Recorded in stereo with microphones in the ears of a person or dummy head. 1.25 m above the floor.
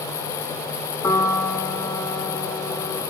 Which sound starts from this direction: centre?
A piano, at 1.0 s.